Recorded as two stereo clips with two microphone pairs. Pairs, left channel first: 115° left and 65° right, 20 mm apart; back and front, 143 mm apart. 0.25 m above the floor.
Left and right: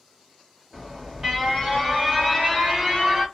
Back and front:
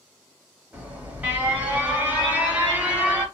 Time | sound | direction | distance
0.7 | an alarm | 65° right | 1.4 m